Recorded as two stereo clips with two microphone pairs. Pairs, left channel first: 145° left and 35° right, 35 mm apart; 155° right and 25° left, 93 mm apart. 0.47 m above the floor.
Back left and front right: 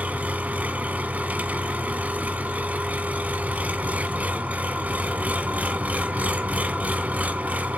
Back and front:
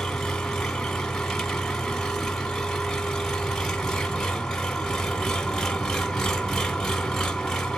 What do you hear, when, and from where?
0.0 s an engine running: 70° right, 1.0 m